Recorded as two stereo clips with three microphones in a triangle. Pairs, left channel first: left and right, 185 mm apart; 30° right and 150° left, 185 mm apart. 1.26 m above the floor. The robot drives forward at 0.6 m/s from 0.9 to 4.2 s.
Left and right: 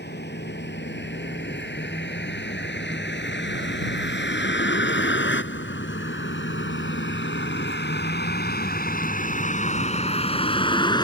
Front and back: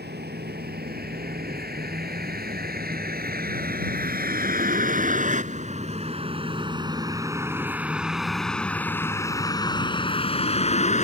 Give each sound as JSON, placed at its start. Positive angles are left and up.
{"t": 0.0, "sound": "a vehicle", "azimuth_deg": 120}